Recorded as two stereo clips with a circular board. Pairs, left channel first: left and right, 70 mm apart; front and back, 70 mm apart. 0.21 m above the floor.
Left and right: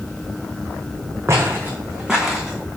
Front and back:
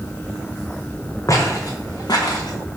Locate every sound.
1.3 s footsteps: 40° right, 0.8 m; by 2.6 s 5° left, 0.9 m